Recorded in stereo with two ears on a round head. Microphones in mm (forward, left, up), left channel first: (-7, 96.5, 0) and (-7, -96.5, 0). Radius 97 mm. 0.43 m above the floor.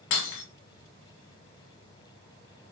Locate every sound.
0.1 s breaking glass: 60° left (ahead or behind), 1.9 m